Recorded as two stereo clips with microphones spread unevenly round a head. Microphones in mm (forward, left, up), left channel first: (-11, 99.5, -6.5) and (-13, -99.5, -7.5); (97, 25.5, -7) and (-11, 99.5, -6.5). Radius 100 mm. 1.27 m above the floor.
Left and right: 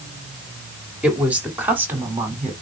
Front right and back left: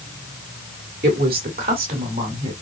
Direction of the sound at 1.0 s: 175° right.